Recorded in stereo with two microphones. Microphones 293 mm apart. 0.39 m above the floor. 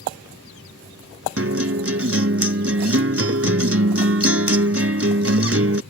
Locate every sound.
1.4 s a guitar: 50° right (ahead or behind)